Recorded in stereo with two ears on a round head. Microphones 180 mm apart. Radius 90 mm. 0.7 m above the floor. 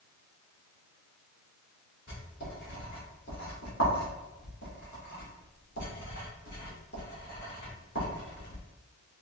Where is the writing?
50° left (ahead or behind), 1.7 m.